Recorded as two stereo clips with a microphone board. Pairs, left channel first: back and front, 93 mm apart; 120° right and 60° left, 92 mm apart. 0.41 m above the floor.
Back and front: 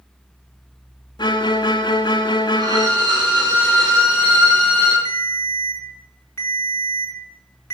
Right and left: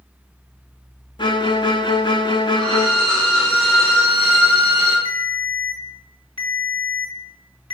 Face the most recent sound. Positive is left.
turn(degrees=-115)